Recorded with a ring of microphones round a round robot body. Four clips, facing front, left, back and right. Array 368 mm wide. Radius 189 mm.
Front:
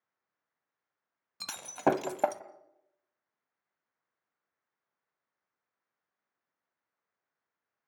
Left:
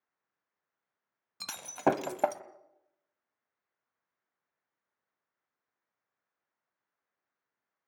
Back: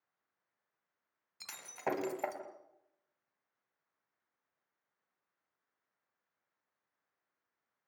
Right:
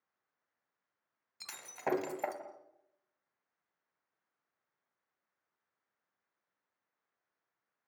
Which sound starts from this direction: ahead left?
Breaking glass, at 1.4 s.